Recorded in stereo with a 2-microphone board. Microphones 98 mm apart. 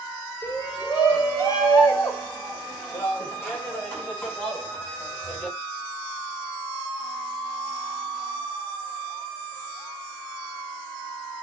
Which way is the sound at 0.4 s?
45° left (ahead or behind).